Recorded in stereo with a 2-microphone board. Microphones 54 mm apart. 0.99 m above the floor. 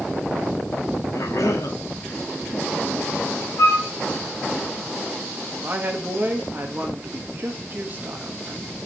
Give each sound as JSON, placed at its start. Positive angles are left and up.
{"t": 1.1, "sound": "a cough", "side_deg": 80, "distance_m": 1.6}
{"t": 3.6, "sound": "a flute", "side_deg": 75, "distance_m": 1.8}
{"t": 5.6, "sound": "a woman speaking", "side_deg": -40, "distance_m": 1.3}